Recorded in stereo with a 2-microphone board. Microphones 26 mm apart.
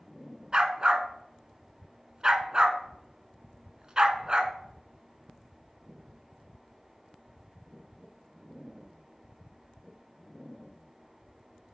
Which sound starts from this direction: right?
A dog barking, at 0.5 s.